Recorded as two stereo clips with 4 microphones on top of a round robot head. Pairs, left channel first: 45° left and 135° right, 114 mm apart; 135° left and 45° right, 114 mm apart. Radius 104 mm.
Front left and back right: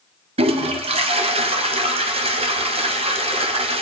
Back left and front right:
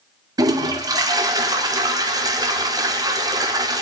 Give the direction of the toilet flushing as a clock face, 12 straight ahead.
3 o'clock.